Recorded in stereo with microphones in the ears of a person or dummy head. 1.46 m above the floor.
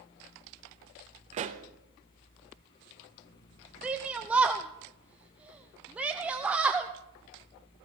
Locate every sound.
1.3 s a pop: 35° right (ahead or behind), 0.9 m
3.8 s a shout: 10° right (ahead or behind), 0.6 m